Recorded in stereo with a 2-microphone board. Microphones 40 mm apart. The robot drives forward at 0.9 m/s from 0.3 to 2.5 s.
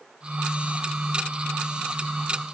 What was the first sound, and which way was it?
Only background noise.